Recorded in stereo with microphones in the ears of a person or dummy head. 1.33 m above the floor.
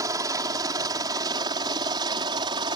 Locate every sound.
0.0 s a helicopter: 25° right (ahead or behind); by 2.8 s 30° right (ahead or behind)